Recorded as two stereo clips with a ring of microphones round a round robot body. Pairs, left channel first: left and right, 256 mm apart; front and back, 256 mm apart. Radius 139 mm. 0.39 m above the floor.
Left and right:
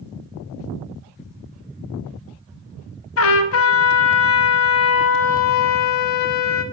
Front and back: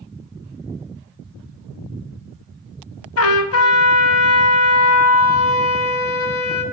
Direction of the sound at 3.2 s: 45° left.